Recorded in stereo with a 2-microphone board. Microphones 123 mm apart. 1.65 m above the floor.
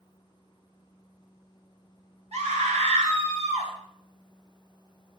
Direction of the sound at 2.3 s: 70° right (ahead or behind).